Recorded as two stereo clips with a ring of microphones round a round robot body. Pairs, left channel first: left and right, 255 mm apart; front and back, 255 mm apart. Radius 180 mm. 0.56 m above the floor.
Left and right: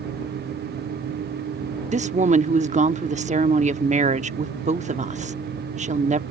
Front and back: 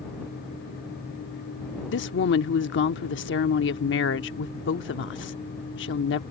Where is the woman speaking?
35° right.